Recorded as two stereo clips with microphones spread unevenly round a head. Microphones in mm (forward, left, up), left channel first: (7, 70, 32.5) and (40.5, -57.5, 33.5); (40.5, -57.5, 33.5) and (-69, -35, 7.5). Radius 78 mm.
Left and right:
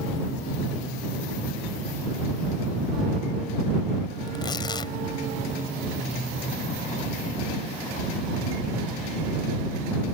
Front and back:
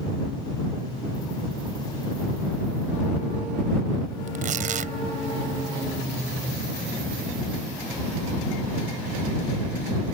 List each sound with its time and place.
4.3 s tearing paper: 170° left